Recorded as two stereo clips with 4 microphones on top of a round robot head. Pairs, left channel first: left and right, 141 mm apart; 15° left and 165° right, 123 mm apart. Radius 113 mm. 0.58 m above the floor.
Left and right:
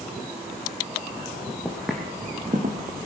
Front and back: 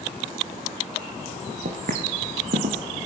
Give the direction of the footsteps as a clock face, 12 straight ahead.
6 o'clock.